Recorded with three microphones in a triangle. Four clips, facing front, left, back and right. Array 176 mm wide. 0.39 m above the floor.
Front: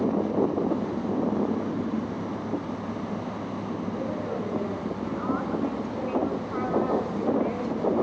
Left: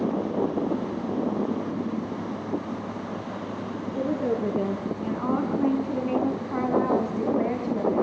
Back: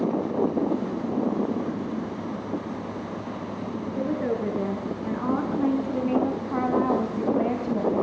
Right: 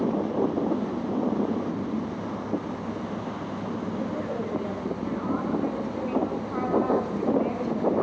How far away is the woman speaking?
About 7 m.